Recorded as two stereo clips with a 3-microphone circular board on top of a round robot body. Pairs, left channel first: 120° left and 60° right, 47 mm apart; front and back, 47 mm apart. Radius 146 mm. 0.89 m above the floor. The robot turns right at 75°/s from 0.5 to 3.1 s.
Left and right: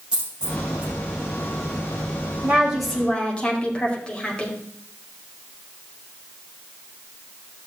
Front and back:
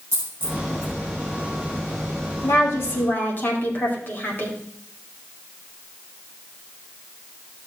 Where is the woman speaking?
Straight ahead, 3 m; by 4.6 s 50° left, 3 m.